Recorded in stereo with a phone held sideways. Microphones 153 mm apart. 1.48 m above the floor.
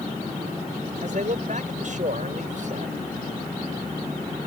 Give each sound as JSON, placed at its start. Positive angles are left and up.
{"t": 1.0, "sound": "a man speaking", "side_deg": -55}